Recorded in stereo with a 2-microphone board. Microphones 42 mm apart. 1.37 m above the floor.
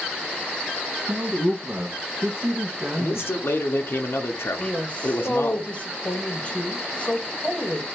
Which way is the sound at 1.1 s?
50° right (ahead or behind).